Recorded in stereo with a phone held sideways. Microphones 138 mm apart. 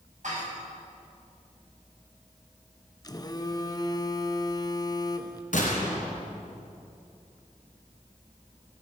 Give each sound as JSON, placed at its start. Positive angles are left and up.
{"t": 0.2, "sound": "dishes clattering", "side_deg": -65, "distance_m": 5.0}
{"t": 3.0, "sound": "a phone buzzing", "side_deg": 30, "distance_m": 0.6}
{"t": 5.5, "sound": "a gunshot", "side_deg": 70, "distance_m": 3.0}